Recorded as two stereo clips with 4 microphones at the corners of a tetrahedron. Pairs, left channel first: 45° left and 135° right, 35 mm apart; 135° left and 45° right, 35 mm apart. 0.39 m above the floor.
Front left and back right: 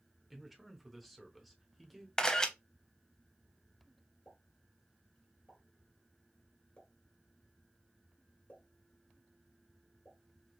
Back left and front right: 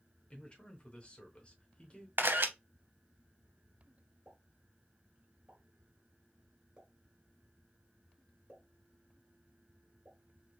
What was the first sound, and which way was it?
A man speaking, 135° left.